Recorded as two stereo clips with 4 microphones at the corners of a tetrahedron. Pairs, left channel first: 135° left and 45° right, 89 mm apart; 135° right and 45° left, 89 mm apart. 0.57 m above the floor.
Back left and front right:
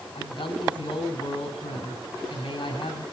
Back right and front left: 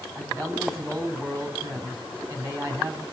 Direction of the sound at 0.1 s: 100° left.